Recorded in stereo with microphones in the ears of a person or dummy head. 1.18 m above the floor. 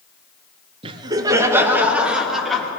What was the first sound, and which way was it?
Laughter, 30° right (ahead or behind).